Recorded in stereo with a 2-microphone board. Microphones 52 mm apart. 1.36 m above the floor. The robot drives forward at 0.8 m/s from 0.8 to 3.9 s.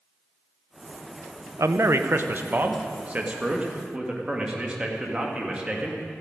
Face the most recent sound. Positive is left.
turn(degrees=-20)  # may be behind; listen again after turning